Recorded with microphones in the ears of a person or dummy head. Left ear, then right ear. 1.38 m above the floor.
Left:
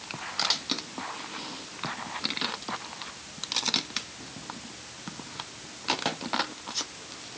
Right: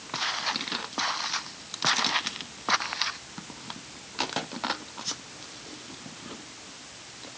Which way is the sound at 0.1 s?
75° right (ahead or behind).